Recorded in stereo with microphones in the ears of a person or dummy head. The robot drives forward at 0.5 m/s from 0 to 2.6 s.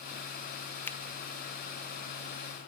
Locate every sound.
0.9 s a finger snap: 15° left (ahead or behind), 0.8 m; by 1.0 s 20° left (ahead or behind), 0.8 m